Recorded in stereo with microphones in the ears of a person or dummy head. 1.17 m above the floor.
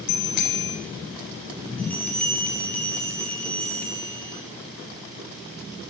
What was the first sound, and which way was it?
A bicycle bell, 60° left (ahead or behind).